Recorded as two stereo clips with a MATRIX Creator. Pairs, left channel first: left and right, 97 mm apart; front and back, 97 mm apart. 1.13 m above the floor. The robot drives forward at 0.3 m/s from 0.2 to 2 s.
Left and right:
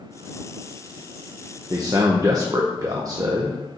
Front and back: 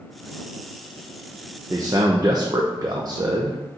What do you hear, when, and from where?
1.7 s a man speaking: 130° right, 0.7 m; by 3.6 s 135° right, 0.7 m